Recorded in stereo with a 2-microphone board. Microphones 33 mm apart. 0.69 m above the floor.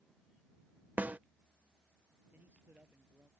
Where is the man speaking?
80° right.